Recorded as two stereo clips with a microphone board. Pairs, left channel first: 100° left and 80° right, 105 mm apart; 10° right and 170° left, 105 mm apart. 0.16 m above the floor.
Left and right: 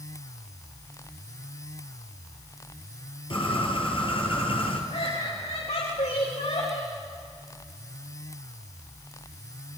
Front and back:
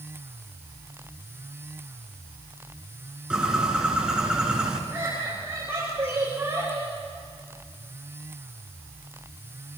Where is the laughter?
100° left, 7 m.